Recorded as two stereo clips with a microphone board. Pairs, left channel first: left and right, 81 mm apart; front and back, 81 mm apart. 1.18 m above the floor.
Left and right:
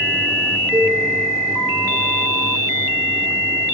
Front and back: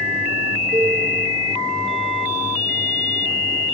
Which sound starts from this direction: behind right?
A cowbell, at 0.7 s.